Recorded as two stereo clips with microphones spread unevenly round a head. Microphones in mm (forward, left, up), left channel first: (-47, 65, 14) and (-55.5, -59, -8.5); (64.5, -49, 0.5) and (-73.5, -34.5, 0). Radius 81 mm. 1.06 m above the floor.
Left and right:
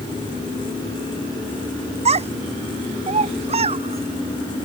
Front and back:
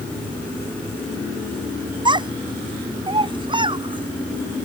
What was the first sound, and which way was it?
A child speaking, 130° right.